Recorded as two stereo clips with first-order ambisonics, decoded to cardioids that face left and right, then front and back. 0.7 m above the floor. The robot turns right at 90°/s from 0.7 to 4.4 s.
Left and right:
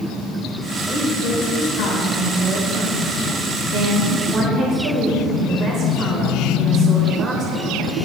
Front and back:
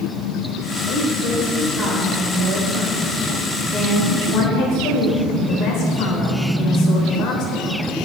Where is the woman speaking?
10° left, 3.5 m; by 8.0 s 30° right, 3.5 m.